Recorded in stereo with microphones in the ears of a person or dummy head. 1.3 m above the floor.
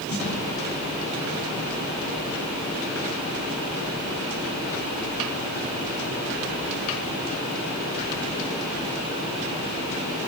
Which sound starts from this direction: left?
A snare drum, at 0.1 s.